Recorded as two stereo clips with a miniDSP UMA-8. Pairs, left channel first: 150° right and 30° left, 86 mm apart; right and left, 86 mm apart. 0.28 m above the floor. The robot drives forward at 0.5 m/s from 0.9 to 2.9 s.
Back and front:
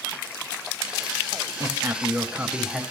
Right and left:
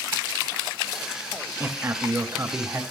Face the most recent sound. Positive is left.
turn(degrees=125)